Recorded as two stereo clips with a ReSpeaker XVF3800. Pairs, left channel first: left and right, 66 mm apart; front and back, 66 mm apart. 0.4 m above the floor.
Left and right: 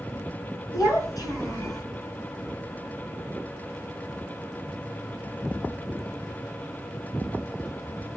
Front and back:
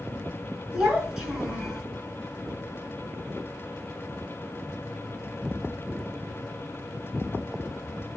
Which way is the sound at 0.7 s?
100° left.